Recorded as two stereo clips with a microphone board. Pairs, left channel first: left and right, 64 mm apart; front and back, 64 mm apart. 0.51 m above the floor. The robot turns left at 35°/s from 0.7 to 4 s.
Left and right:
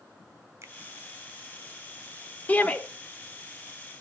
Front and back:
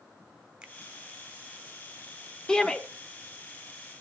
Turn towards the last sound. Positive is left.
turn(degrees=15)